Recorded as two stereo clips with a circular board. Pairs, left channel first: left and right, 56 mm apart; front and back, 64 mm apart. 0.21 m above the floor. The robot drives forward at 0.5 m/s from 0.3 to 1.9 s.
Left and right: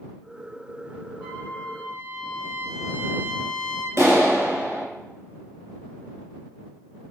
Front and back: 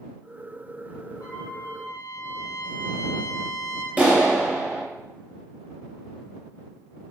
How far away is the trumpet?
About 3.5 m.